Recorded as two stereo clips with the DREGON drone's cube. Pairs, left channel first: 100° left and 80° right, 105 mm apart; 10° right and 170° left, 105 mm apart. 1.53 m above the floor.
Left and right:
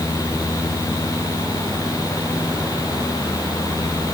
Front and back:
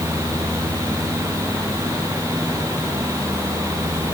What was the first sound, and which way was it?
Only background noise.